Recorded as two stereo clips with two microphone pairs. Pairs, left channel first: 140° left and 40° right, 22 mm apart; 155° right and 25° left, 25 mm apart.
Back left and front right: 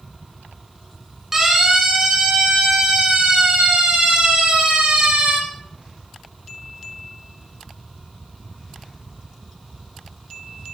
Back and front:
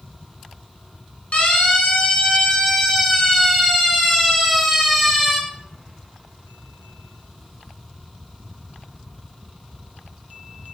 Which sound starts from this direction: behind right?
A siren, at 1.3 s.